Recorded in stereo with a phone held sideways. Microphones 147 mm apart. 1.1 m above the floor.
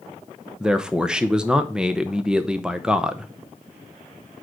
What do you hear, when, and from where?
0.6 s a man speaking: 5° right (ahead or behind), 0.7 m